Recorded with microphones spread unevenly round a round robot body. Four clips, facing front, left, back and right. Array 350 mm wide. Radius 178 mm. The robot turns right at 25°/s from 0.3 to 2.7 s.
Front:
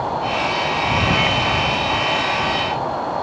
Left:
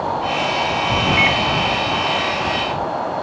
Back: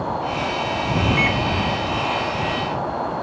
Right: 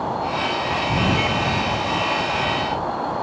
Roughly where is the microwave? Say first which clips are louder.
Left 4 dB, front 1 dB; behind.